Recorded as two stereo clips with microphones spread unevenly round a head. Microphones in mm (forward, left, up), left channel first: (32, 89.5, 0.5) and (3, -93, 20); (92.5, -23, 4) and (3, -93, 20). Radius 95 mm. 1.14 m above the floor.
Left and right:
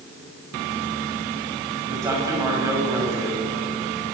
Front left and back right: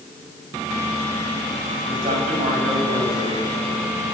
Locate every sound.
1.9 s a man speaking: 175° right, 6.5 m